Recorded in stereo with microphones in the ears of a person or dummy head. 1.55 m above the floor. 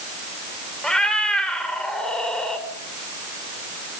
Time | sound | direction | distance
0.8 | a cat meowing | centre (ahead or behind) | 3 m